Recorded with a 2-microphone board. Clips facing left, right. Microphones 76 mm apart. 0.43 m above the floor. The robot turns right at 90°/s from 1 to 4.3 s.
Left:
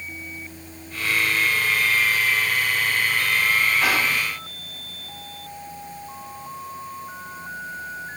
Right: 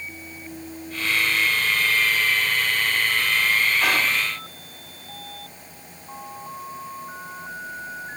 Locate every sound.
3.8 s whispering: centre (ahead or behind), 0.8 m; by 4.2 s 15° left (ahead or behind), 0.8 m